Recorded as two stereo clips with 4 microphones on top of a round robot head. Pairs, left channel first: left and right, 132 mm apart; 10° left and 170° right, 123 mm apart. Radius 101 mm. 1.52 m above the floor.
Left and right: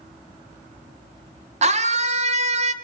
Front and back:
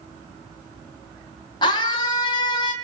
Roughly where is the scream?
Ahead right.